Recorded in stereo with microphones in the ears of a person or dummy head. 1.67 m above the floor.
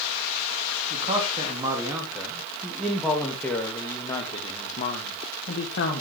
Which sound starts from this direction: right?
A man speaking, at 0.9 s.